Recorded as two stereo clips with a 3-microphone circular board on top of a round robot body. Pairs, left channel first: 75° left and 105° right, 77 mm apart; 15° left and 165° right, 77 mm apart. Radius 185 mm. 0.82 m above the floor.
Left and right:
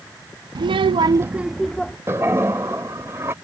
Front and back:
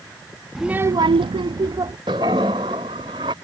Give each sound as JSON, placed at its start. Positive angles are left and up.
{"t": 0.6, "sound": "a child speaking", "azimuth_deg": -80}
{"t": 2.1, "sound": "a toilet flushing", "azimuth_deg": -170}